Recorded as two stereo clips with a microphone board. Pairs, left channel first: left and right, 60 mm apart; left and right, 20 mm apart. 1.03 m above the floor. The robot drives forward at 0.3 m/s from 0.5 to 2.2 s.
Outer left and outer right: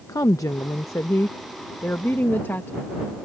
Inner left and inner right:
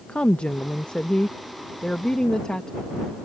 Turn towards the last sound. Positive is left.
turn(degrees=35)  # may be behind; listen again after turning